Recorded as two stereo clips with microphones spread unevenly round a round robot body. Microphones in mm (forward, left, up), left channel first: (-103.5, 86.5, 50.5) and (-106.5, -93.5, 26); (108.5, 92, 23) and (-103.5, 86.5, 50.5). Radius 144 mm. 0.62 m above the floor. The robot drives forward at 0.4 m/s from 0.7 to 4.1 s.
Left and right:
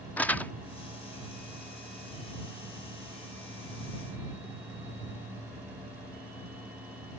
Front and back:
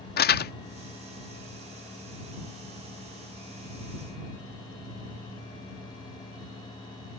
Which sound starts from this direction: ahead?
Crumpling, at 0.2 s.